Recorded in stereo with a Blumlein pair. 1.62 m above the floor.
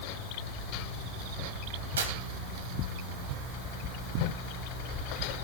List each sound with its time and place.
2.0 s tearing paper: 65° right, 3.5 m